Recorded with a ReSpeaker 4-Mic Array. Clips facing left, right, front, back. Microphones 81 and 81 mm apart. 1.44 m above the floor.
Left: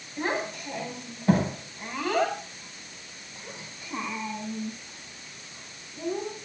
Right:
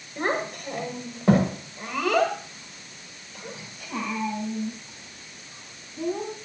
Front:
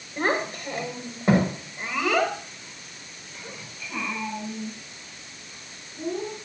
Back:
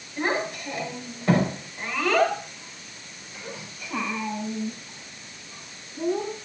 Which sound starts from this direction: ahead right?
A child speaking, at 0.2 s.